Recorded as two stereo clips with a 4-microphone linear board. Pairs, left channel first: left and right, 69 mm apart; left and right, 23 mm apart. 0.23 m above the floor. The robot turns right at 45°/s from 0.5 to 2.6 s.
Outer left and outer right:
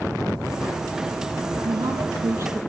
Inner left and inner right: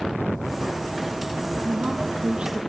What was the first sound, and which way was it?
A woman speaking, 70° right.